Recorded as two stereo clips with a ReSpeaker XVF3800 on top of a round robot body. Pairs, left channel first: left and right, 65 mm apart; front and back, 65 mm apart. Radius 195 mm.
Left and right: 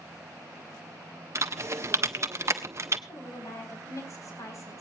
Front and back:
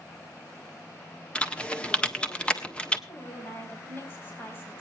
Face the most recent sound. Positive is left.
turn(degrees=55)